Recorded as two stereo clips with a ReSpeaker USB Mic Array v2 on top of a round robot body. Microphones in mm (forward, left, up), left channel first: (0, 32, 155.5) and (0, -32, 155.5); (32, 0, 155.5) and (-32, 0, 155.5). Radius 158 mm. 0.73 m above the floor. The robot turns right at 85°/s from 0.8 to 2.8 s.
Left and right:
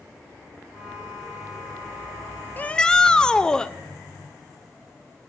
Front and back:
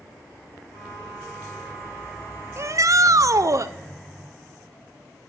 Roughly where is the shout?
Behind left.